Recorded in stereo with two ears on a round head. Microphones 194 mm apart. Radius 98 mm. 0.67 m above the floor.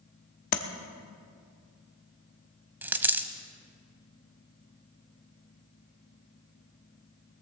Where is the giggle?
I don't hear a giggle.